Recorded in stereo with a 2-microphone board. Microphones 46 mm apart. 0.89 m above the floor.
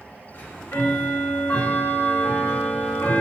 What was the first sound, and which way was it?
Ticking, 45° left (ahead or behind).